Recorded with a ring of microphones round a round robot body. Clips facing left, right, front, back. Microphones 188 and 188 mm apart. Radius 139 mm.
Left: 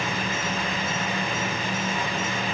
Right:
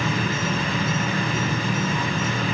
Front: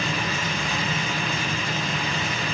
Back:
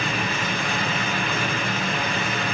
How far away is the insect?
About 3.5 m.